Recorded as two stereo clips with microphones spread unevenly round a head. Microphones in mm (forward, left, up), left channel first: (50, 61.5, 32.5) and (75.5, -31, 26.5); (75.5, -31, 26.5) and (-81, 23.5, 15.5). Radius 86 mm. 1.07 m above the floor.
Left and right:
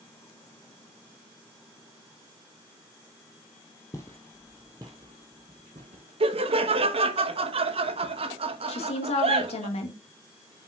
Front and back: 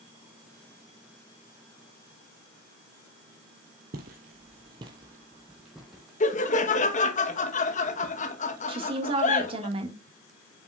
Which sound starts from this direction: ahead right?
Laughter, at 6.2 s.